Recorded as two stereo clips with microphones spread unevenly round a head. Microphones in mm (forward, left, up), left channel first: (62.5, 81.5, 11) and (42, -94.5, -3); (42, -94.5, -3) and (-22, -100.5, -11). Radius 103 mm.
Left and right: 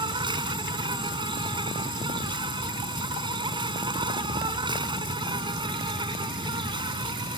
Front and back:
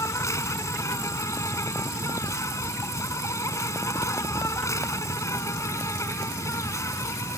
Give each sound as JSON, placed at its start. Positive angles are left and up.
{"t": 0.0, "sound": "an insect", "azimuth_deg": -30}